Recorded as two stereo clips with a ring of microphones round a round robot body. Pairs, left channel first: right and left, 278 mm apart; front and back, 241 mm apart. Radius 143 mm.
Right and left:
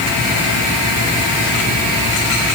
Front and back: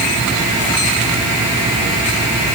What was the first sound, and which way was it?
Only background noise.